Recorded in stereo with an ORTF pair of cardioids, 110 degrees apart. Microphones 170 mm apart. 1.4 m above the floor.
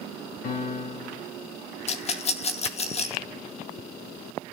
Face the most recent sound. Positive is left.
turn(degrees=40)